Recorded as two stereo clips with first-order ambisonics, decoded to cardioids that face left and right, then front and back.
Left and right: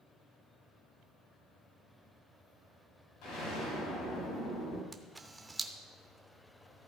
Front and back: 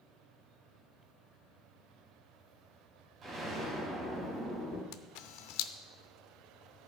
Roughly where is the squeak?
I don't hear a squeak.